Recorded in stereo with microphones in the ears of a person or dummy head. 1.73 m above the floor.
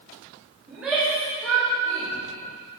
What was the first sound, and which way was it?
A shout, 10° right (ahead or behind).